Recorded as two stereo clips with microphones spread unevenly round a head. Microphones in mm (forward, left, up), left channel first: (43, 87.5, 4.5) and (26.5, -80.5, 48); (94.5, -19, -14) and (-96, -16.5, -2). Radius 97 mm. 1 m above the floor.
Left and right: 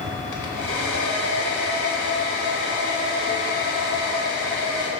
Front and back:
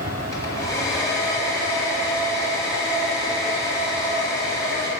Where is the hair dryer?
75° left, 1.4 m.